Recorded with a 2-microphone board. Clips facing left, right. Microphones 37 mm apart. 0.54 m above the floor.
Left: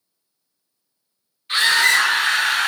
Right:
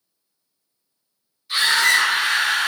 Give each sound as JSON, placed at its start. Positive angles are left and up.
{"t": 1.5, "sound": "a scream", "side_deg": 45, "distance_m": 1.1}